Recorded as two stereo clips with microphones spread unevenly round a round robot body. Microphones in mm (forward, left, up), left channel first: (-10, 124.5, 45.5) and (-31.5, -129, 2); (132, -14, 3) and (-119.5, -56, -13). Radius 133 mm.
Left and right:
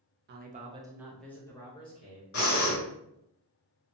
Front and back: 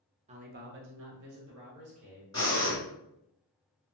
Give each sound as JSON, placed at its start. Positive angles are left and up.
{"t": 0.3, "sound": "a man speaking", "azimuth_deg": -115, "distance_m": 0.6}
{"t": 2.3, "sound": "breathing", "azimuth_deg": 80, "distance_m": 1.3}